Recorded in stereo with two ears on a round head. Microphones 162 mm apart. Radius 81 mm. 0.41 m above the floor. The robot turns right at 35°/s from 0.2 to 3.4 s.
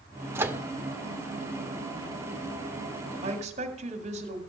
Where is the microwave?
15° right (ahead or behind), 0.6 m; by 0.6 s 10° right (ahead or behind), 0.6 m.